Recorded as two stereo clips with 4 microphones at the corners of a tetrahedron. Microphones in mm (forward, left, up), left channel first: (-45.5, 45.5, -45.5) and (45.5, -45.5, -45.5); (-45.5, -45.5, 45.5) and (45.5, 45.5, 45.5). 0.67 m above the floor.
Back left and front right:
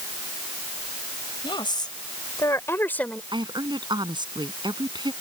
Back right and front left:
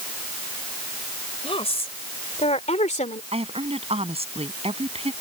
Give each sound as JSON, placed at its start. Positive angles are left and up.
{"t": 1.4, "sound": "a woman speaking", "azimuth_deg": -175}
{"t": 3.3, "sound": "a woman speaking", "azimuth_deg": 10}